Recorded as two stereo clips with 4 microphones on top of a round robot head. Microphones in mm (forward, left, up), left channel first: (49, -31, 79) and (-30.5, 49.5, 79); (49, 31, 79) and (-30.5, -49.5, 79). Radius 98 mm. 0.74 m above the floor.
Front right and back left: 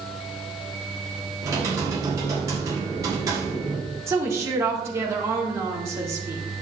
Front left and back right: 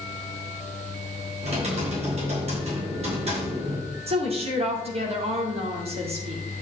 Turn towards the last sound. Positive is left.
turn(degrees=-160)